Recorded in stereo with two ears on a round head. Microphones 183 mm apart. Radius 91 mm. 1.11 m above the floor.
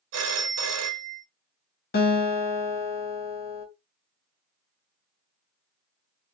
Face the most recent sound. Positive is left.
turn(degrees=45)  # may be behind; listen again after turning